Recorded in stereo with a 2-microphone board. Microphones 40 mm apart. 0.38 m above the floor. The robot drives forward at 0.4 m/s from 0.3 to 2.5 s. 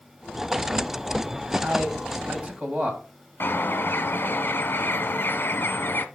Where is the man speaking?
40° right (ahead or behind), 2 m; by 3.0 s 35° right (ahead or behind), 2.5 m.